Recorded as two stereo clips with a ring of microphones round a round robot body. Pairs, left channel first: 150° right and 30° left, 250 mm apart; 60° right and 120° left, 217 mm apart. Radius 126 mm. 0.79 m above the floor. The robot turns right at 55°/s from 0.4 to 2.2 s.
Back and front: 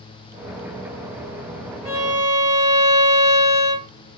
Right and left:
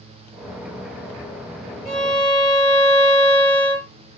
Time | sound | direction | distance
1.9 | a violin | 125° right | 1.6 m